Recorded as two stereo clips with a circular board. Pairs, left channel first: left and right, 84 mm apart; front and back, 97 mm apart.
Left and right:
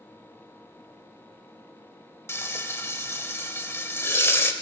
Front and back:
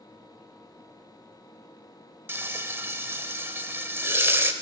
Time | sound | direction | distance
2.3 | frying | 130° left | 0.9 m